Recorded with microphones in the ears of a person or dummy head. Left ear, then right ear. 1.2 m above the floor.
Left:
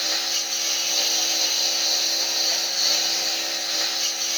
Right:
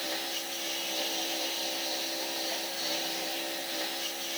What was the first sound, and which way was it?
A lawn mower, 40° left (ahead or behind).